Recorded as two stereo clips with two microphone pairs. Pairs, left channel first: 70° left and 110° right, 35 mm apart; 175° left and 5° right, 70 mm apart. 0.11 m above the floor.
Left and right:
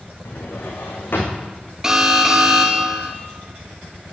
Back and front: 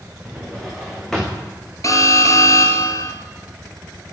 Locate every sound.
0.2 s a drawer: 90° left, 4 m
1.8 s an alarm: 175° left, 1.6 m